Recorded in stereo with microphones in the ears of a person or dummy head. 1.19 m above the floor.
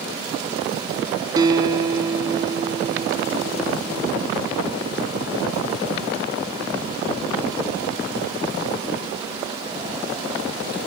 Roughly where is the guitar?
Right.